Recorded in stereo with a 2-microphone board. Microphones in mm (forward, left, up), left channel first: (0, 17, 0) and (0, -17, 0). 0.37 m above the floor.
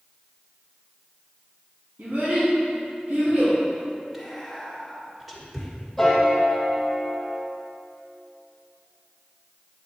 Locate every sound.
2.0 s a child speaking: 65° right (ahead or behind), 1.9 m; by 3.6 s 70° right (ahead or behind), 3.5 m
4.1 s whispering: 10° right (ahead or behind), 1.5 m
6.0 s a piano: 5° left (ahead or behind), 1.7 m